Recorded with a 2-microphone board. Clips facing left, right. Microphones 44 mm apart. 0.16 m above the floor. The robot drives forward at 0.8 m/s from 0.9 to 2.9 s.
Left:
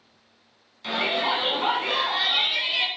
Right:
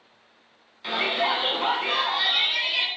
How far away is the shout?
About 1.1 m.